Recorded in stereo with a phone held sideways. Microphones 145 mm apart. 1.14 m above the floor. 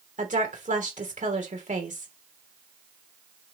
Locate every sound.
0.2 s a woman speaking: 55° right (ahead or behind), 3 m